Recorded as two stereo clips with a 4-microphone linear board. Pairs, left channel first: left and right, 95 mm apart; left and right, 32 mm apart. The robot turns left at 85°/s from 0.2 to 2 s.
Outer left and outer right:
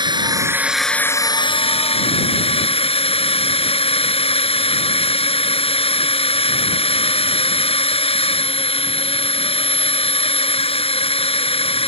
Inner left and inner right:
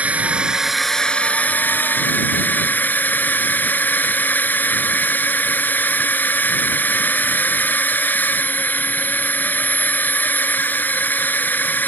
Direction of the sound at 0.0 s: 130° right.